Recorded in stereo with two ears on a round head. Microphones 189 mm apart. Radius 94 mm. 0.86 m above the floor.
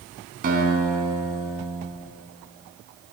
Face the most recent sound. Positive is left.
turn(degrees=-45)  # may be behind; listen again after turning